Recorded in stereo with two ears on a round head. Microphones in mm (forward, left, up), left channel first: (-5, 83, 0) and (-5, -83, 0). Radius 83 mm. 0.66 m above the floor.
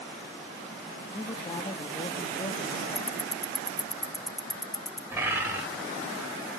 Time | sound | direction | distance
1.1 | a man speaking | 25° left (ahead or behind) | 0.8 m
3.0 | ticking | centre (ahead or behind) | 0.6 m
5.1 | a bird | 10° right (ahead or behind) | 3.5 m